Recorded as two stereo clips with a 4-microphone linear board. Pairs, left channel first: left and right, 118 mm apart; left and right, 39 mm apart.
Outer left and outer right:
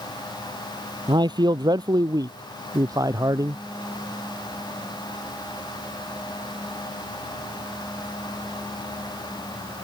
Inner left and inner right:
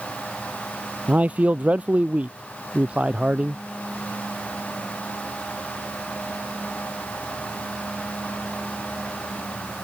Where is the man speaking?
40° right (ahead or behind); by 3.6 s 30° right (ahead or behind).